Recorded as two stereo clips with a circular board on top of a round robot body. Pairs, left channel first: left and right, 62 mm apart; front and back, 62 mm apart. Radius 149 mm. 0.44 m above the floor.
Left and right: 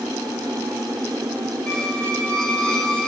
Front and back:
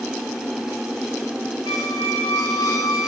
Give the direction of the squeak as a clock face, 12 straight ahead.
11 o'clock.